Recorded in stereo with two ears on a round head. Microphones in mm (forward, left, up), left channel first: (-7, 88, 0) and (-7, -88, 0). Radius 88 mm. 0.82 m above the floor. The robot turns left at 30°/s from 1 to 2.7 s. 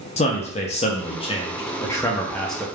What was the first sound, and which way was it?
A man speaking, 45° left.